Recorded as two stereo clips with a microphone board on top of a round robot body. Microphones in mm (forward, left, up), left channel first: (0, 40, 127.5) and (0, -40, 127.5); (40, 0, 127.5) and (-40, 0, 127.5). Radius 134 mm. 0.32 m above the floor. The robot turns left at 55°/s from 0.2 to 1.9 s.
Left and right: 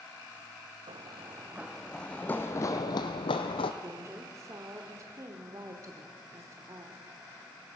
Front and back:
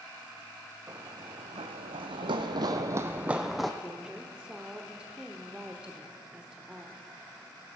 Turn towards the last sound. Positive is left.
turn(degrees=-105)